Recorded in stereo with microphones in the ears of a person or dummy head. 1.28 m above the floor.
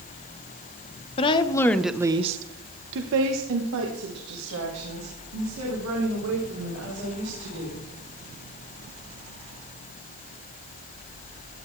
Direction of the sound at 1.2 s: 30° left (ahead or behind).